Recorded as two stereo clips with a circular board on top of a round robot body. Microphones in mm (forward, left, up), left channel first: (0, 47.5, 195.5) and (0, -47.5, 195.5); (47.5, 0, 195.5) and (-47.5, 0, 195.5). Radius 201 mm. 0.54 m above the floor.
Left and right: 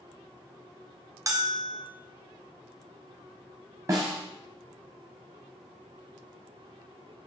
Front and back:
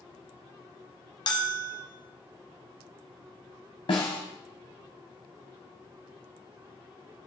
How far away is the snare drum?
About 0.5 m.